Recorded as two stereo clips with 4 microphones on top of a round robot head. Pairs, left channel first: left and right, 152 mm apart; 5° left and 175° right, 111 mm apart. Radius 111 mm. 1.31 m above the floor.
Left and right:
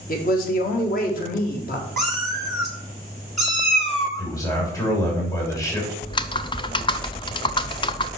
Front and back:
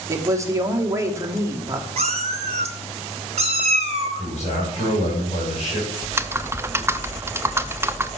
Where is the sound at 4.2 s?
20° left, 3 m.